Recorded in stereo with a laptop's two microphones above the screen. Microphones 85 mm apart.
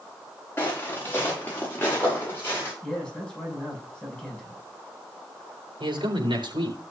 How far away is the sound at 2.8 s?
About 6.5 m.